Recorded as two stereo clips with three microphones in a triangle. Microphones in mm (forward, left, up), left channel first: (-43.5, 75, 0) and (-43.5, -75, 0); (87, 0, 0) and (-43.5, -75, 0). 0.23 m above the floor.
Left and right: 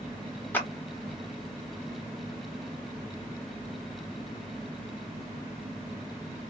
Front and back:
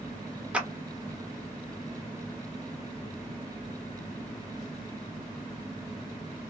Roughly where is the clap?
Behind left.